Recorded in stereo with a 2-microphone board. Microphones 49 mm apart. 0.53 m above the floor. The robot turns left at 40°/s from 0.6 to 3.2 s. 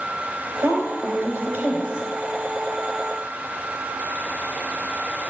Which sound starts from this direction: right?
A woman speaking, at 0.6 s.